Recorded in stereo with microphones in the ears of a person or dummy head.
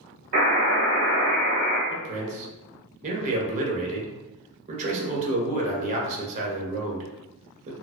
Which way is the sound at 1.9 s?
40° right (ahead or behind).